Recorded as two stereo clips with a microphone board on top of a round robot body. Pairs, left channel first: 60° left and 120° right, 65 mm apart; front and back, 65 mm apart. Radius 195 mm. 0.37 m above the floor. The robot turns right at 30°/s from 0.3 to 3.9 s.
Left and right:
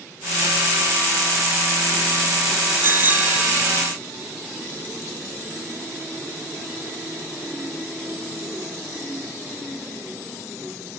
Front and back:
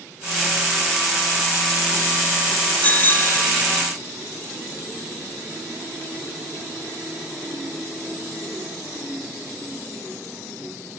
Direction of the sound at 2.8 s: 70° right.